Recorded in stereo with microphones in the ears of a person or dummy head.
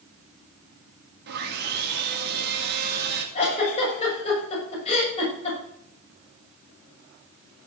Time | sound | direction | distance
1.3 | sawing | 55° right (ahead or behind) | 3.5 m
3.4 | a giggle | 40° left (ahead or behind) | 7 m